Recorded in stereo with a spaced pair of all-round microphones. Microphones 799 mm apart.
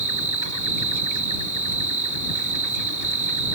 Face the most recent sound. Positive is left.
turn(degrees=-20)  # may be behind; listen again after turning